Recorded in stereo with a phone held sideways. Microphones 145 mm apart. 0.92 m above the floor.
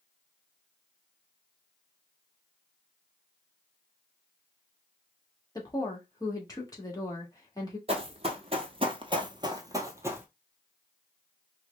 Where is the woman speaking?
25° left (ahead or behind), 1.9 m.